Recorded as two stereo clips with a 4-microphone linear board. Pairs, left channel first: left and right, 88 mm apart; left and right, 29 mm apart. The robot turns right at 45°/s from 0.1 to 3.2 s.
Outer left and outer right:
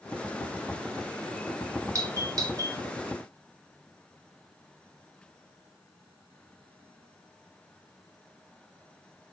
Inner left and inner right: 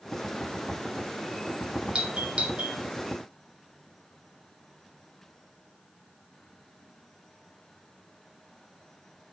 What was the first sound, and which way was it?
A doorbell, 35° right (ahead or behind).